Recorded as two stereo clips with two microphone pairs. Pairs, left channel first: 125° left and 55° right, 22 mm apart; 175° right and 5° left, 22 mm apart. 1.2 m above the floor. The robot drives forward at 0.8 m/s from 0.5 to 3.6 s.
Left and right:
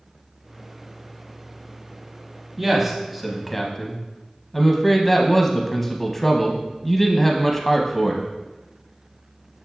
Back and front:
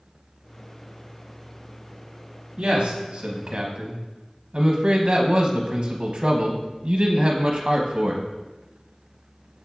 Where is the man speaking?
25° left, 1.4 m; by 8.3 s 50° left, 0.7 m.